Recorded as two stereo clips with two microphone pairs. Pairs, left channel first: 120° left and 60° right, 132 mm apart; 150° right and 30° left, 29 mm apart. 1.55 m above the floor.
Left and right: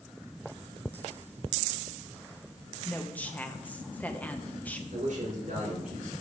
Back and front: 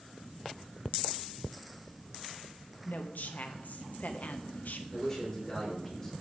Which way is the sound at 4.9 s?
75° right.